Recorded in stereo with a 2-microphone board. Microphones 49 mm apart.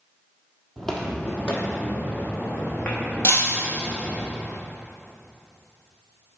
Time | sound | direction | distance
0.8 | footsteps | 5° left (ahead or behind) | 1.2 m
3.2 | breaking glass | 60° left (ahead or behind) | 1.3 m